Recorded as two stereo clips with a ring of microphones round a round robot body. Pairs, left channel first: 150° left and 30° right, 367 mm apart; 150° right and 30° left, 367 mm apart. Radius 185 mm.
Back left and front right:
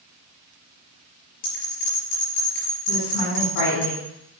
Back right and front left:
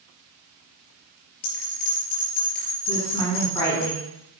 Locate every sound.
1.4 s a bell: 150° right, 5 m
2.9 s a woman speaking: 130° left, 3.5 m